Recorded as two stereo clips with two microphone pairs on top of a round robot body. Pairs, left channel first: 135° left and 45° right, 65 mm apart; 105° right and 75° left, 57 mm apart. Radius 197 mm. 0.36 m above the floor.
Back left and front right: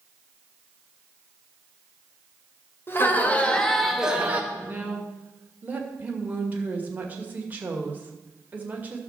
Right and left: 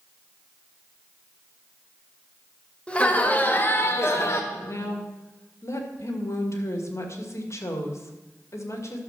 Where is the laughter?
175° right, 2.5 m; by 4.4 s 110° right, 1.8 m.